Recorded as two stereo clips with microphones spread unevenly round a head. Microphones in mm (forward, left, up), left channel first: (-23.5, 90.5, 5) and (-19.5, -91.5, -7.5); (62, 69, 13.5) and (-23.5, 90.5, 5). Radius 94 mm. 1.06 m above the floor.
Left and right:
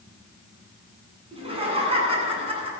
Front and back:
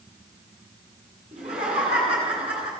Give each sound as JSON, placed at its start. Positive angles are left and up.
{"t": 1.3, "sound": "laughter", "azimuth_deg": -150, "distance_m": 8.5}